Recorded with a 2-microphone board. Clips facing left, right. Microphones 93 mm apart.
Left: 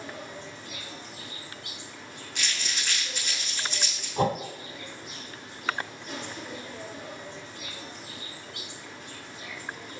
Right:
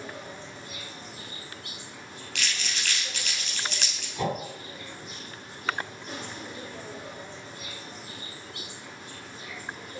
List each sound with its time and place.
0.0 s an insect: 40° right (ahead or behind), 3.5 m
2.4 s crumpling: 75° right (ahead or behind), 3.5 m
4.2 s a whoosh: 45° left (ahead or behind), 1.6 m